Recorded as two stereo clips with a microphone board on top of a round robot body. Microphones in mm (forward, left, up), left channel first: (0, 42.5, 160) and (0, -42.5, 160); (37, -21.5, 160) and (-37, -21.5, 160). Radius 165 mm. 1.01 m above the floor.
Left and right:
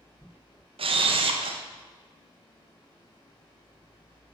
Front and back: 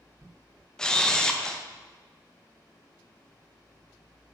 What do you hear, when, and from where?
0.8 s a camera shutter: 80° right, 0.7 m